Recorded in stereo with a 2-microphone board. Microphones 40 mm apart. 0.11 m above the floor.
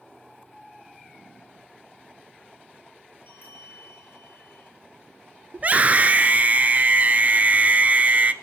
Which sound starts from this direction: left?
A bell, at 3.3 s.